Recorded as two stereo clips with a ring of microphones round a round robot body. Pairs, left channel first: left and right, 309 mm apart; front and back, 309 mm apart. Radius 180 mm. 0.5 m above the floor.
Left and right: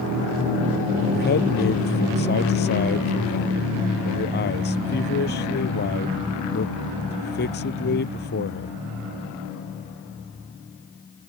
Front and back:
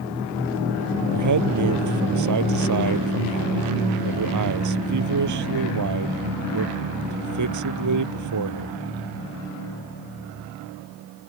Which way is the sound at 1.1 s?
150° left.